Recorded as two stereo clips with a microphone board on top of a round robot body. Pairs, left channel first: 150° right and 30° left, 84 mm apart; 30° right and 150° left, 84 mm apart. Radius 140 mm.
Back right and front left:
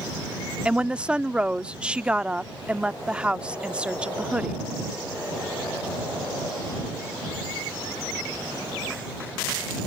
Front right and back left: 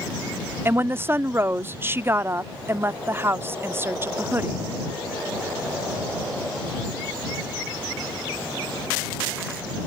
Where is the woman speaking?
105° left.